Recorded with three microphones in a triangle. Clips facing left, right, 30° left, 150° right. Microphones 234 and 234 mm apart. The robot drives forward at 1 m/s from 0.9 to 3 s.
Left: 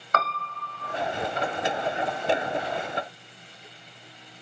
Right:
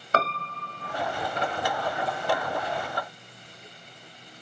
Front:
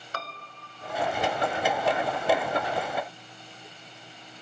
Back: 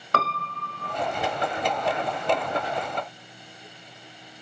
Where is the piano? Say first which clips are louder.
Right 3 dB, back 12 dB; 150° right, 0.7 m.